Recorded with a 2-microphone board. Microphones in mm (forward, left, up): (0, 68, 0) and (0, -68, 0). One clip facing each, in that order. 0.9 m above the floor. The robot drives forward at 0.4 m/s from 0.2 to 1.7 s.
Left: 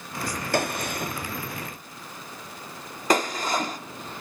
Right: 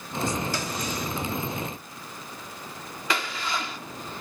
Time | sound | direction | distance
0.5 | a gunshot | 65° left (ahead or behind) | 0.6 m